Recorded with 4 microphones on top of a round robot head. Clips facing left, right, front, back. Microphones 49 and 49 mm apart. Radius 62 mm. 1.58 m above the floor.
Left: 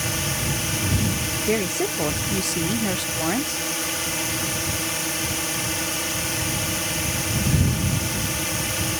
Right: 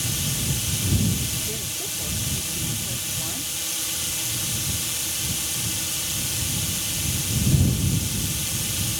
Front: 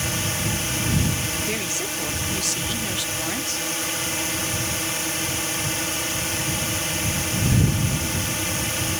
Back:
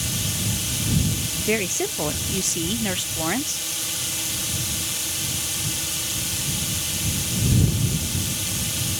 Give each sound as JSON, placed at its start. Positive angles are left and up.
{"t": 0.0, "sound": "a drone", "azimuth_deg": 45}
{"t": 1.5, "sound": "a woman speaking", "azimuth_deg": 120}